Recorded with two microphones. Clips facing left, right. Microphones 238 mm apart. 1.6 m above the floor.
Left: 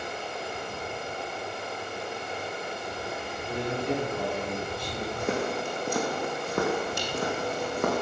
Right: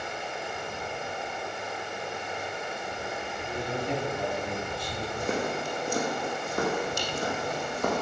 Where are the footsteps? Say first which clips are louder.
Left 1 dB; 75° left (ahead or behind), 5.5 m; by 8.0 s 65° left (ahead or behind), 5.5 m.